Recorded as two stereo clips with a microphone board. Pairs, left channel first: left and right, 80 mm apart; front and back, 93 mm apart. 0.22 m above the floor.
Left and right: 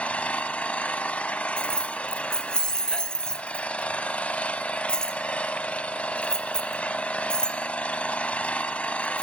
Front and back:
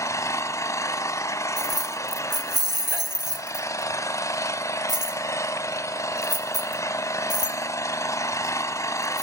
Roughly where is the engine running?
Ahead left.